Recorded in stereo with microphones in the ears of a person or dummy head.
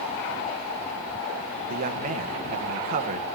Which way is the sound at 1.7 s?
45° right (ahead or behind).